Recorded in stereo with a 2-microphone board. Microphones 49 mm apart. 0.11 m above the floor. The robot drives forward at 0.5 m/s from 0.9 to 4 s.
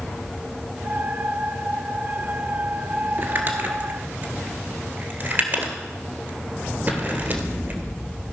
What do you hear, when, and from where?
3.2 s crumpling: 45° right (ahead or behind), 1.5 m; by 7.8 s 40° right (ahead or behind), 1.6 m